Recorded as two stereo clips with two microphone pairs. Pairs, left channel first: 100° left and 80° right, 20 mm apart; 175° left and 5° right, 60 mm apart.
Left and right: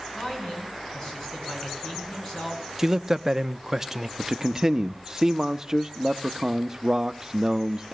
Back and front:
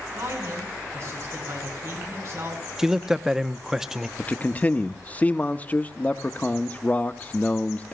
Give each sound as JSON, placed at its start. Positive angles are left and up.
{"t": 0.1, "sound": "a man speaking", "azimuth_deg": 35, "distance_m": 7.5}
{"t": 2.8, "sound": "a man speaking", "azimuth_deg": -70, "distance_m": 0.6}
{"t": 4.2, "sound": "a man speaking", "azimuth_deg": -135, "distance_m": 0.8}